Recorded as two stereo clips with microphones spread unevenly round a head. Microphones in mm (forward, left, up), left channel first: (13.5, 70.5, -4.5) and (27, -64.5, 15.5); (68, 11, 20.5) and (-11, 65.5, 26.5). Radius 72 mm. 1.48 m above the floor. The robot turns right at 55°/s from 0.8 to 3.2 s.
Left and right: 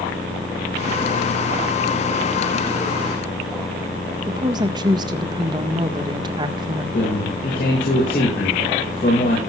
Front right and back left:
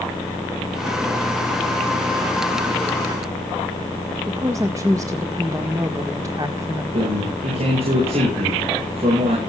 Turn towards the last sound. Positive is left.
turn(degrees=130)